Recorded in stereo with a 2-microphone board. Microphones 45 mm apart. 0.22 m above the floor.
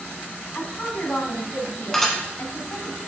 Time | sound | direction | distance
0.6 | a woman speaking | 45° left (ahead or behind) | 1.4 m
1.9 | dishes clattering | 10° left (ahead or behind) | 1.5 m